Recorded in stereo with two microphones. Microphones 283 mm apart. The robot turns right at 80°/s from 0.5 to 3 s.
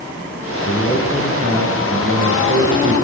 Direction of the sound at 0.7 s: 140° left.